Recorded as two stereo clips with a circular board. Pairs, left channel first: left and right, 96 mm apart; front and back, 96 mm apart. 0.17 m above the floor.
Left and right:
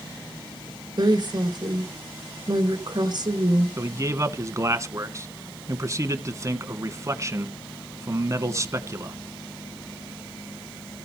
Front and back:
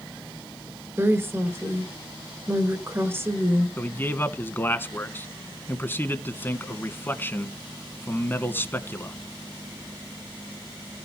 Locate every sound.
1.0 s a woman speaking: 120° right, 2.5 m
3.8 s a man speaking: 55° right, 1.4 m